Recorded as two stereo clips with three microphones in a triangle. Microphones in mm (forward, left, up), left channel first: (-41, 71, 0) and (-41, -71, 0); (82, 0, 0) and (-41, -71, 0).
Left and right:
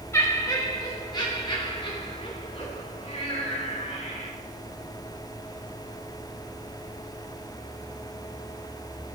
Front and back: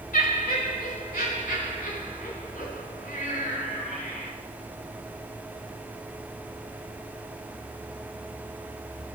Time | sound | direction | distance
0.1 | laughter | 20° left | 2 m